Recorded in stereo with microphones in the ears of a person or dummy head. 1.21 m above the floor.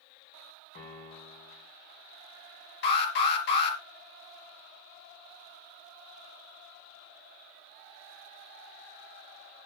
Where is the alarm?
65° left (ahead or behind), 4 m.